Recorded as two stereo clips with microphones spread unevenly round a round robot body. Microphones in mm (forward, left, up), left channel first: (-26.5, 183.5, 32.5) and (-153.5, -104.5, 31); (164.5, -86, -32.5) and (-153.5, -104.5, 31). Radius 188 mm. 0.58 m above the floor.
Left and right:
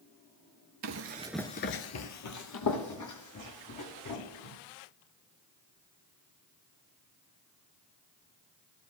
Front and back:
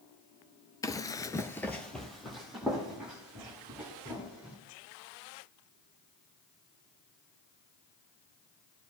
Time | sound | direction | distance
0.8 | running footsteps | 85° right | 0.8 m